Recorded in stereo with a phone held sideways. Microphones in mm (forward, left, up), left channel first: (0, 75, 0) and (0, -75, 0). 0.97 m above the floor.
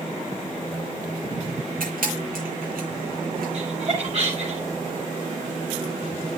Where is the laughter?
50° right (ahead or behind), 6 m.